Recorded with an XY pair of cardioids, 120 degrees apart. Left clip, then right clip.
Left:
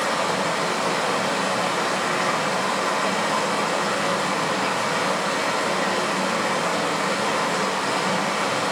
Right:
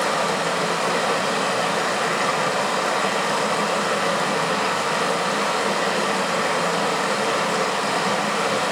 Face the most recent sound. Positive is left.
turn(degrees=-10)